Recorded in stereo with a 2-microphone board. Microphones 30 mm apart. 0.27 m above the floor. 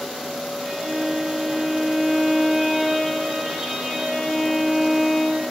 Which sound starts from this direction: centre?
A violin, at 0.6 s.